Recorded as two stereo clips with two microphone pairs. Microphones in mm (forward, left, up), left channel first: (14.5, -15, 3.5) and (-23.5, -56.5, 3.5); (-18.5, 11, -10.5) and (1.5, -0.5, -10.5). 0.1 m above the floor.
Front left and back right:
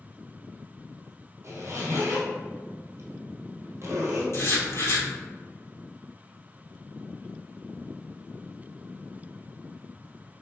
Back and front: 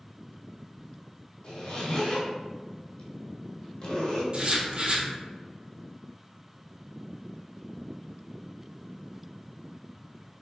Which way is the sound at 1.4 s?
170° right.